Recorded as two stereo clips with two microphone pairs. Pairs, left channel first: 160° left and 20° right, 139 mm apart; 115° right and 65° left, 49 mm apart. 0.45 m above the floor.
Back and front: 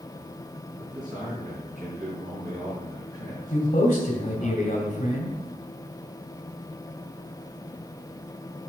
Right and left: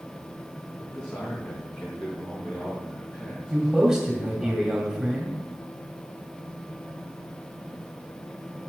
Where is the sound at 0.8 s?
35° right, 3.5 m.